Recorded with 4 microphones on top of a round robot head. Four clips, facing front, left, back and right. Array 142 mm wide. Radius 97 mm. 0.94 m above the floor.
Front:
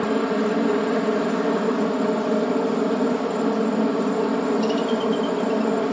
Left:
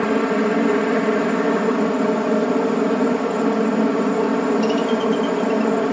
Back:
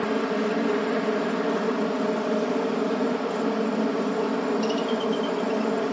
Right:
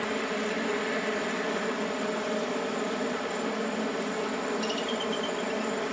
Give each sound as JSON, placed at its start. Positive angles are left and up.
{"t": 0.0, "sound": "a helicopter", "azimuth_deg": 80}